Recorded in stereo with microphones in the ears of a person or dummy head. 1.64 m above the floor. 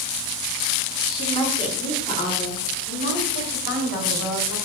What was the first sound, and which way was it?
A woman speaking, 25° left (ahead or behind).